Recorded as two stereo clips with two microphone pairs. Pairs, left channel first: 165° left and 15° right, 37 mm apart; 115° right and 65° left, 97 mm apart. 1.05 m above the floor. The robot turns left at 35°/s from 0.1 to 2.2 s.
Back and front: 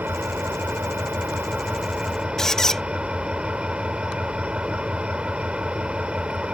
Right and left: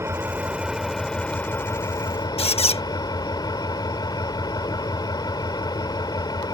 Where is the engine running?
5° left; by 6.5 s 70° right.